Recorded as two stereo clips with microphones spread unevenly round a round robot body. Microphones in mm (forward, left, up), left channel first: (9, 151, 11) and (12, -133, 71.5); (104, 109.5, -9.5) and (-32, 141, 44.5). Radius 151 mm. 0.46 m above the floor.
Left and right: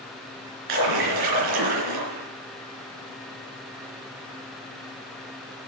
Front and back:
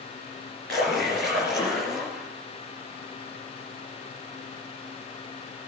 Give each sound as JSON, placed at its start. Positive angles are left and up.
{"t": 0.7, "sound": "a splash", "azimuth_deg": -100, "distance_m": 4.0}